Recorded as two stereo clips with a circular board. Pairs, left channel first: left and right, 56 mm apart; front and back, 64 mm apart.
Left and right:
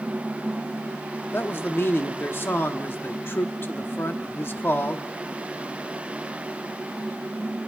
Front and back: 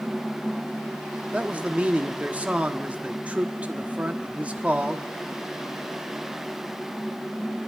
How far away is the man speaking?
About 1.1 m.